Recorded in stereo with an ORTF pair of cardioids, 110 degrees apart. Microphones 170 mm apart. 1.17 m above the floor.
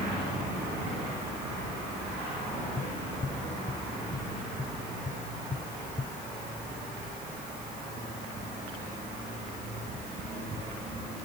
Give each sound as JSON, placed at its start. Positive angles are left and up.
{"t": 2.8, "sound": "tapping", "azimuth_deg": 25}